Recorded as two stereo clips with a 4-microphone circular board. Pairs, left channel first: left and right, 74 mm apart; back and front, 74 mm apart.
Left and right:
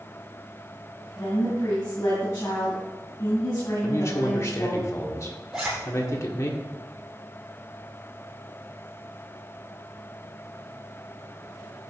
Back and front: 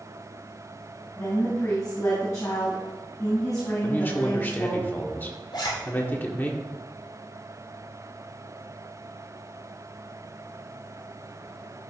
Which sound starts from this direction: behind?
A zipper, at 5.5 s.